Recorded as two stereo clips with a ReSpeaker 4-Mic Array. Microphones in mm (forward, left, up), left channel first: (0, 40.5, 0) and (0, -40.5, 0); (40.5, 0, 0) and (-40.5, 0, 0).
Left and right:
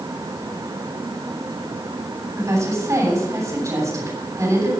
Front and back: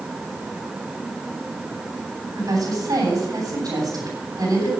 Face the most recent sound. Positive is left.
turn(degrees=-140)